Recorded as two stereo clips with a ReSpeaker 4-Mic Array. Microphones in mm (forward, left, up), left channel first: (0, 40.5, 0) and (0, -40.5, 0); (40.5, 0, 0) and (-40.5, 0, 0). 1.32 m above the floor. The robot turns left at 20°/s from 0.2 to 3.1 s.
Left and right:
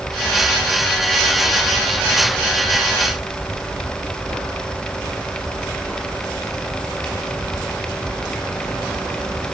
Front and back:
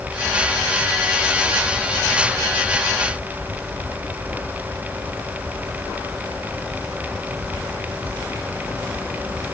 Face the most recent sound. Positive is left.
No sound to turn to.